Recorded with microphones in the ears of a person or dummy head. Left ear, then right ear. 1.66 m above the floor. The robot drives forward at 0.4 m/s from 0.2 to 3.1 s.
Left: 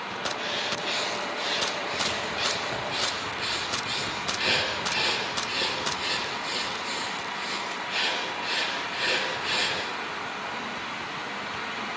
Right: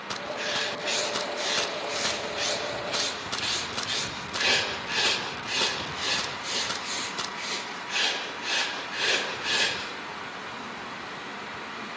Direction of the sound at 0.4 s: 30° right (ahead or behind).